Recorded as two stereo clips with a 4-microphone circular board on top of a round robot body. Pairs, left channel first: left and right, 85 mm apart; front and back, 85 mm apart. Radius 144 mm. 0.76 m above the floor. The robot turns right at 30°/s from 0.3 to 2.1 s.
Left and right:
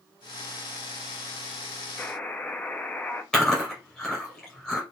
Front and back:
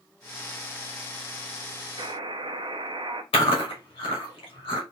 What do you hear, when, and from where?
2.0 s a buzzer: 160° left, 0.6 m; by 3.2 s 165° left, 0.6 m
3.3 s chewing: 10° left, 1.2 m